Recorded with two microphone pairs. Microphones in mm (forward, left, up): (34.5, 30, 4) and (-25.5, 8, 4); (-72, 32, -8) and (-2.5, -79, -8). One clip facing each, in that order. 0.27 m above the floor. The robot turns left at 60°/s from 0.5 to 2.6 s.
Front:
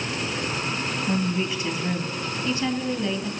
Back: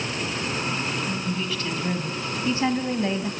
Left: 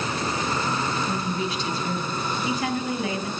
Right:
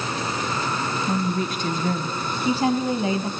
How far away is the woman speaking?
About 2.5 m.